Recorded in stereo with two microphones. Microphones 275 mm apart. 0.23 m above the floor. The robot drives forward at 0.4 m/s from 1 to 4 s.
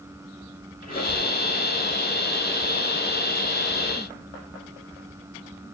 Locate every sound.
0.8 s a squeak: 30° left (ahead or behind), 2 m; by 1.4 s 35° left (ahead or behind), 2 m